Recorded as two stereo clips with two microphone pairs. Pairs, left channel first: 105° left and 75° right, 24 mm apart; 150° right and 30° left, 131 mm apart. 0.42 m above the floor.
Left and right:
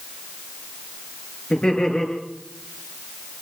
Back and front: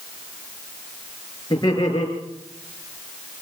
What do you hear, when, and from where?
1.5 s laughter: 155° left, 6 m